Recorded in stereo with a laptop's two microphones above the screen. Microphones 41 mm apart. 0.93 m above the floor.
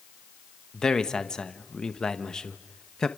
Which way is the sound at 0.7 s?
20° left (ahead or behind).